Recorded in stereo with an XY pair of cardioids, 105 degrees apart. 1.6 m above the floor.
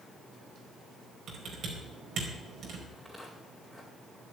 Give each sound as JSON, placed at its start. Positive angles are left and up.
{"t": 1.3, "sound": "typing on a keyboard", "azimuth_deg": -60, "distance_m": 4.5}
{"t": 2.9, "sound": "footsteps", "azimuth_deg": 5, "distance_m": 5.0}